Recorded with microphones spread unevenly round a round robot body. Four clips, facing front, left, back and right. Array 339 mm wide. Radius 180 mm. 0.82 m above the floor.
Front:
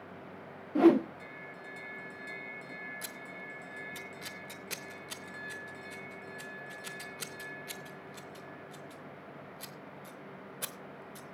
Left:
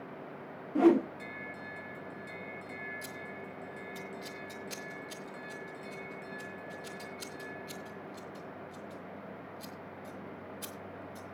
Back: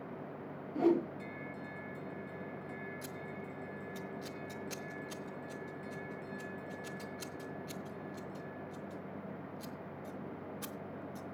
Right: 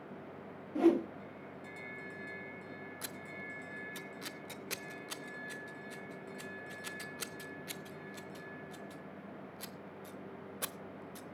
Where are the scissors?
95° right, 0.6 m.